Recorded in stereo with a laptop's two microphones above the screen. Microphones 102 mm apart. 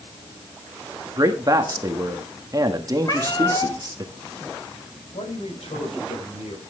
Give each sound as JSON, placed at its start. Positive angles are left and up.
{"t": 1.2, "sound": "a man speaking", "side_deg": -35, "distance_m": 1.4}
{"t": 3.0, "sound": "a cat meowing", "side_deg": 40, "distance_m": 3.5}
{"t": 5.1, "sound": "a man speaking", "side_deg": 80, "distance_m": 5.5}